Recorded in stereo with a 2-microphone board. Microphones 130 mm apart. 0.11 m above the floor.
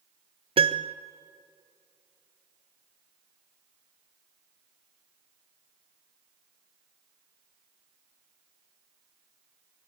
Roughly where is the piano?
Right.